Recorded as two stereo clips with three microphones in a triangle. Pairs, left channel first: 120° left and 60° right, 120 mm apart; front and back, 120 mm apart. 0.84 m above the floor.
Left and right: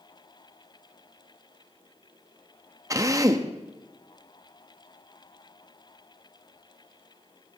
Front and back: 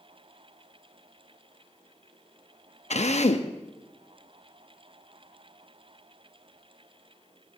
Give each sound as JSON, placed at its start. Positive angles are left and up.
{"t": 2.9, "sound": "a drill", "azimuth_deg": 0, "distance_m": 0.8}